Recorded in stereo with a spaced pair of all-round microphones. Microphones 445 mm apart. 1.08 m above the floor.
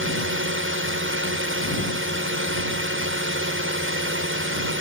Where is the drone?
25° right (ahead or behind).